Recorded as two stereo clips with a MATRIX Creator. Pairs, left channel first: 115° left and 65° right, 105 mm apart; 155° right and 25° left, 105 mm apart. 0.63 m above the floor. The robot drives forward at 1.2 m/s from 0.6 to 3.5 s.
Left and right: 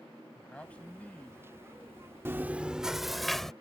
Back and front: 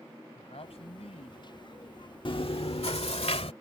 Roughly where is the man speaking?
Behind.